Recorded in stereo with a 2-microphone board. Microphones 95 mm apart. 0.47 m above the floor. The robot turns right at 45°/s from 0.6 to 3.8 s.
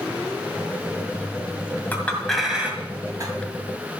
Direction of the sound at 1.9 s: 20° left (ahead or behind).